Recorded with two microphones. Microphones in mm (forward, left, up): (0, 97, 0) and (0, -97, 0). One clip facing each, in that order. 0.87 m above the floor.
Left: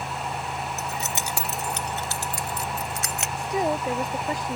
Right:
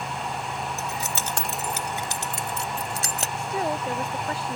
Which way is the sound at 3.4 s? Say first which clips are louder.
Left 3 dB; 15° left (ahead or behind).